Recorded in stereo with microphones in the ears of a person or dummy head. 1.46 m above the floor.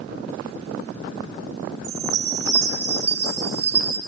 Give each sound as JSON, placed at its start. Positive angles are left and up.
{"t": 1.8, "sound": "a chime", "side_deg": -35, "distance_m": 7.5}